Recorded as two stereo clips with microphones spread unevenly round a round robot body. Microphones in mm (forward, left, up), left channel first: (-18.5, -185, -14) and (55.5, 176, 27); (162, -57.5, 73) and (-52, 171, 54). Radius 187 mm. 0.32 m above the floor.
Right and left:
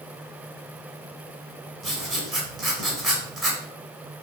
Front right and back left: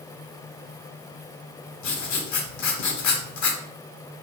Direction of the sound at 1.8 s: 15° right.